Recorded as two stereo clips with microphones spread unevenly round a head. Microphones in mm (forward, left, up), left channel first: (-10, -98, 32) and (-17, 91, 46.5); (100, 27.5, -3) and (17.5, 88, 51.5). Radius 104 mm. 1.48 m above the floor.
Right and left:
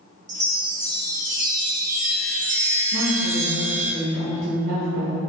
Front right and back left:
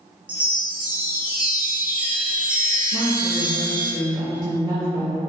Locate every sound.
0.3 s a chime: 120° left, 0.6 m
2.9 s a woman speaking: 80° left, 1.0 m